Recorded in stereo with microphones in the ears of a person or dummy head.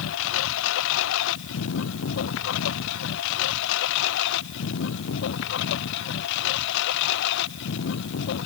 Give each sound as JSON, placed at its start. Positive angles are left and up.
{"t": 0.0, "sound": "a lawn mower", "side_deg": 75}